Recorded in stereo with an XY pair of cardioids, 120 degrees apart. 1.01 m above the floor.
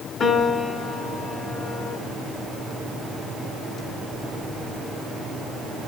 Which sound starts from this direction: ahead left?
A piano, at 0.2 s.